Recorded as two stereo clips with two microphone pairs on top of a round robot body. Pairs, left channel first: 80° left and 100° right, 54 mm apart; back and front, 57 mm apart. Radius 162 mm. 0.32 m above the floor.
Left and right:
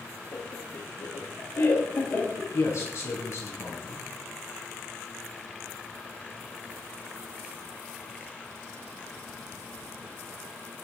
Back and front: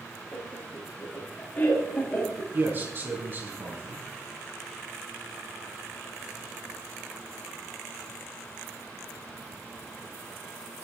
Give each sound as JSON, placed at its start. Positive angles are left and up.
{"t": 0.3, "sound": "laughter", "azimuth_deg": 115, "distance_m": 7.5}
{"t": 2.5, "sound": "a man speaking", "azimuth_deg": 50, "distance_m": 5.0}